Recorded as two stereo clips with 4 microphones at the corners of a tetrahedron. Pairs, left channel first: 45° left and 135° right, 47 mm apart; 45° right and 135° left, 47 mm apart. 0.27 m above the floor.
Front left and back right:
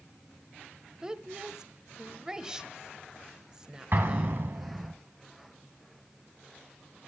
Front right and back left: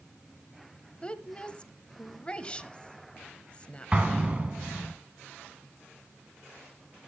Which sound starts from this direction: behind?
An explosion, at 3.9 s.